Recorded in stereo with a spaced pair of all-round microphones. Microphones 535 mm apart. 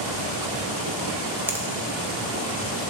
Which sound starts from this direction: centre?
A finger snap, at 1.5 s.